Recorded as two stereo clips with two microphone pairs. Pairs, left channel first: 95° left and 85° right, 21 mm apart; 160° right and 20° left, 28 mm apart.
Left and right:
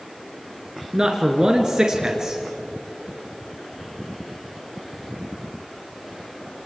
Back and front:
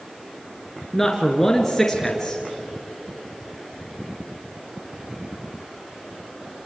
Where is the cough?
No cough in this recording.